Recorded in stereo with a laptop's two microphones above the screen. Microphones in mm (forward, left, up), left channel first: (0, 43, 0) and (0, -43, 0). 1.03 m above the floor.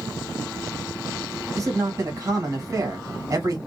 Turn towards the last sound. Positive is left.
turn(degrees=-45)  # may be behind; listen again after turning